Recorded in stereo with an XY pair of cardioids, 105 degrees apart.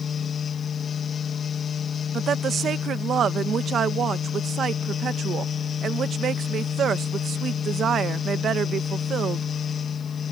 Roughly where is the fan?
Ahead left.